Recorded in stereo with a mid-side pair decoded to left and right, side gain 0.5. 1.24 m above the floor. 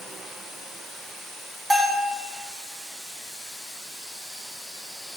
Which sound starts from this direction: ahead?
A bell, at 1.7 s.